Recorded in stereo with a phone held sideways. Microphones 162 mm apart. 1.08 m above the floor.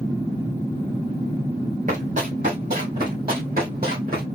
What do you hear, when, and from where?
1.9 s running footsteps: 55° right (ahead or behind), 3 m; by 4.2 s 70° right (ahead or behind), 3 m